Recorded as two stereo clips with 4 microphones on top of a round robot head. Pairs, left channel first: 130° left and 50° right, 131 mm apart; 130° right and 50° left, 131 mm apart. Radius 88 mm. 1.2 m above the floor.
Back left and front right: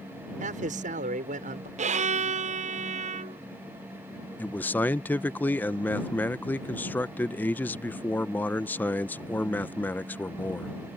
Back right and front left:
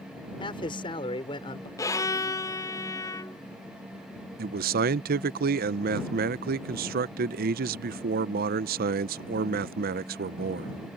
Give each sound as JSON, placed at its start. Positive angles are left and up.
{"t": 0.4, "sound": "a man speaking", "azimuth_deg": -75}
{"t": 1.8, "sound": "a violin", "azimuth_deg": -70}
{"t": 4.4, "sound": "a man speaking", "azimuth_deg": 55}